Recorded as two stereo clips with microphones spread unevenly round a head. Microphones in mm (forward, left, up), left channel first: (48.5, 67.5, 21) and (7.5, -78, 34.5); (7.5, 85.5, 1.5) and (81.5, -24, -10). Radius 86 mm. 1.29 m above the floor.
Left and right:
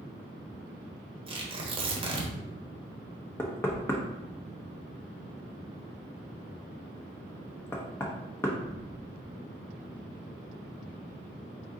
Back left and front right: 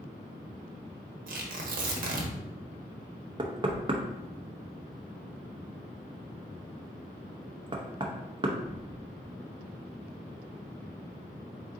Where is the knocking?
5° right, 0.8 m.